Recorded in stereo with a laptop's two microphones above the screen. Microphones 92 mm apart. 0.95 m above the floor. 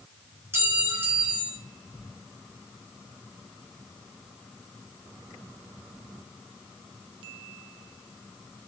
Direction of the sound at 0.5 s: 30° right (ahead or behind).